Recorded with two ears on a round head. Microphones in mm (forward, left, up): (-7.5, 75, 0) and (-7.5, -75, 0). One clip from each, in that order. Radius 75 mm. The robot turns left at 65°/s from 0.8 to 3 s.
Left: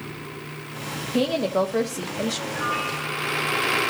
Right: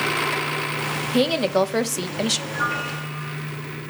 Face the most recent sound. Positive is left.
turn(degrees=-115)